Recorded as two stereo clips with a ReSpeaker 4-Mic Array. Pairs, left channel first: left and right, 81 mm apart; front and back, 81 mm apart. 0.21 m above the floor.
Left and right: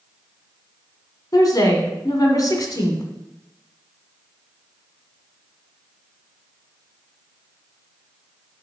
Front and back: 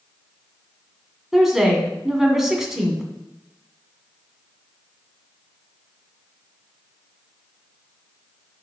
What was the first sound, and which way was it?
A woman speaking, 95° left.